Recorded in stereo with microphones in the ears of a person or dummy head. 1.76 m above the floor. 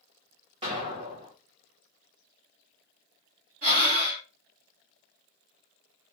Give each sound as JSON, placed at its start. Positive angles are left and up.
{"t": 0.6, "sound": "an explosion", "side_deg": -30, "distance_m": 1.2}
{"t": 3.6, "sound": "breathing", "side_deg": -45, "distance_m": 1.4}